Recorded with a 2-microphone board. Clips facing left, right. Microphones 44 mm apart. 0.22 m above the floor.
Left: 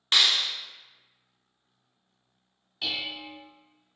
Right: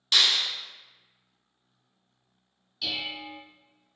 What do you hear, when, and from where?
0.1 s a clap: 40° left (ahead or behind), 1.2 m
2.8 s dishes clattering: 40° left (ahead or behind), 0.9 m